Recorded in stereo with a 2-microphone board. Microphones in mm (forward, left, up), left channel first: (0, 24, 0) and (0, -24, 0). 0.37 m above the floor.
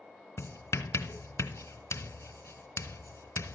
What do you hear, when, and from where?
0.4 s writing: 70° left (ahead or behind), 0.8 m